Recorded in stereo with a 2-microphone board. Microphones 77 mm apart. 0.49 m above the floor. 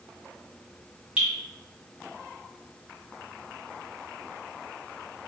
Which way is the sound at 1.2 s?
15° right (ahead or behind).